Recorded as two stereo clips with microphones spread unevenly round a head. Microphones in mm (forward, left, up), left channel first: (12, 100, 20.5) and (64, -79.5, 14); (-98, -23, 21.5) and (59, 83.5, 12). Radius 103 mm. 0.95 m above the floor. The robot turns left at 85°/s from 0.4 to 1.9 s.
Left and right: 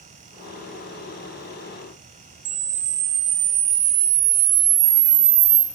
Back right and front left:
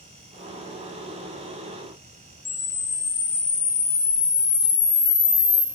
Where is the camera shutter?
70° right, 0.9 m.